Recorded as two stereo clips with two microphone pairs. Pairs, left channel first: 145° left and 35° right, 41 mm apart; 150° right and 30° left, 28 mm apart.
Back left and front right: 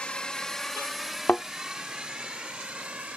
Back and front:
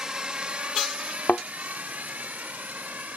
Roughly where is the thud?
Behind.